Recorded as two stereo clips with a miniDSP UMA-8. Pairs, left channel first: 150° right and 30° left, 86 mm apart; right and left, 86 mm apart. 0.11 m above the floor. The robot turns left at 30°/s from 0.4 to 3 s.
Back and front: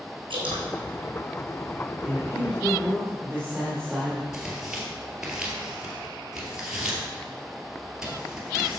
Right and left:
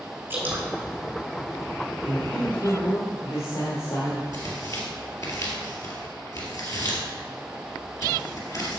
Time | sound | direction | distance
0.3 | dripping | 25° left | 2.5 m
2.0 | a man speaking | 30° right | 3 m
4.3 | tearing paper | 50° right | 2.5 m